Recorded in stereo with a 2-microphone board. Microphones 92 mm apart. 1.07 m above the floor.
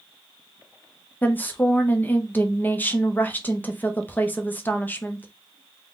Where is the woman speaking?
20° left (ahead or behind), 0.6 m.